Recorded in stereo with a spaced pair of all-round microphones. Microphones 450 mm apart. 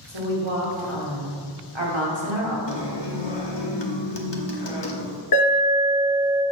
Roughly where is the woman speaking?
Right.